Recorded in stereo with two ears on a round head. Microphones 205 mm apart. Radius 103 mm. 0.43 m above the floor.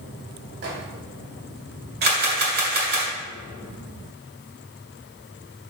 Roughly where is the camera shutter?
Right.